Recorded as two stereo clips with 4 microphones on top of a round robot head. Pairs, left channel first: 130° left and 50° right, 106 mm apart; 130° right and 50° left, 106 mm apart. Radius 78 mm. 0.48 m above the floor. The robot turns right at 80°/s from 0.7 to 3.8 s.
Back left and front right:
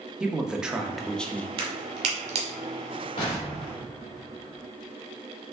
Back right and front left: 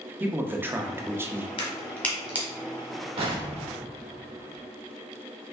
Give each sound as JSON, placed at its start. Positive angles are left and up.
{"t": 0.2, "sound": "a man speaking", "azimuth_deg": 20, "distance_m": 0.7}
{"t": 1.6, "sound": "a crack", "azimuth_deg": -90, "distance_m": 1.5}
{"t": 3.2, "sound": "an explosion", "azimuth_deg": 80, "distance_m": 2.0}